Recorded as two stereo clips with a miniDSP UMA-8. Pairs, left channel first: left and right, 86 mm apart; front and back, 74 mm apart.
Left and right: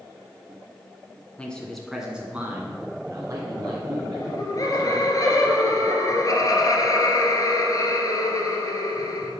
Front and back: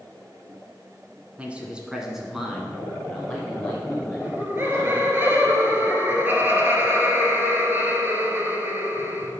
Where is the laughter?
125° left, 1.9 m.